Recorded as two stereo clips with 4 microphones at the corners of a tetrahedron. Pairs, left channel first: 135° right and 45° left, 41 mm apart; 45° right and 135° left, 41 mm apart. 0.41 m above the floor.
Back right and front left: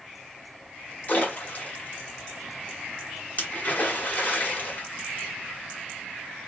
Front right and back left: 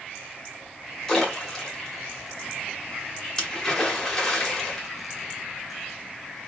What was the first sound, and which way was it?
A splash, 115° right.